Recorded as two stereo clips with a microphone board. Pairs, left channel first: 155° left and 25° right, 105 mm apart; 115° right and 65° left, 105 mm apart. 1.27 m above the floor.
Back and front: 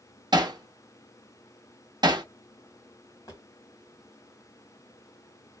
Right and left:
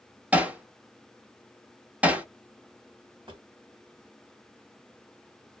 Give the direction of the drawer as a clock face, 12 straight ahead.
8 o'clock.